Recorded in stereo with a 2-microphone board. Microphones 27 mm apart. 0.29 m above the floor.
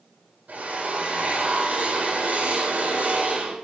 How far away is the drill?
About 8.5 m.